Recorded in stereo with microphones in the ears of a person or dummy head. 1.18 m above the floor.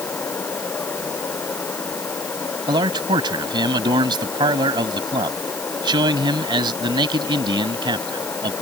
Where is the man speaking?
15° right (ahead or behind).